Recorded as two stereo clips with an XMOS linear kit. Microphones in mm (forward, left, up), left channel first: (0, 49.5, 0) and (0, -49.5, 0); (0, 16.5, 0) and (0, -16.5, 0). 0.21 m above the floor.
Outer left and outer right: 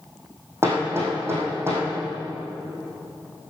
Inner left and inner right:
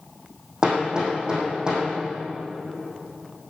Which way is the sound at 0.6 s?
25° right (ahead or behind).